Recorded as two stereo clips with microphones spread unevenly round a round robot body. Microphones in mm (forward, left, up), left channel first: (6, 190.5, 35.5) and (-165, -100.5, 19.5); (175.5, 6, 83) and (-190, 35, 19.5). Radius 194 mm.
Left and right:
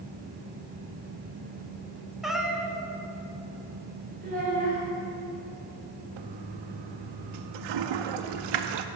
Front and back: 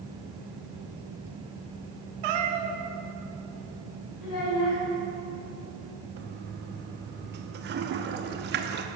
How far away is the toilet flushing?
About 0.7 m.